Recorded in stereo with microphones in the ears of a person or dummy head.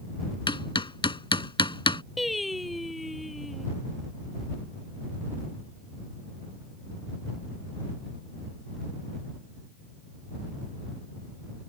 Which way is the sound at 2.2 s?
Centre (ahead or behind).